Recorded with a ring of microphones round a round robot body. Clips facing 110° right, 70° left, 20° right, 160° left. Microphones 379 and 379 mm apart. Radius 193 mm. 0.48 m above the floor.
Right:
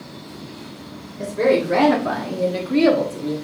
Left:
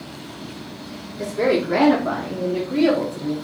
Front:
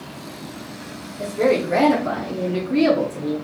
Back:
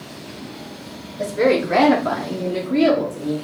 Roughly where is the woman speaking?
Behind left.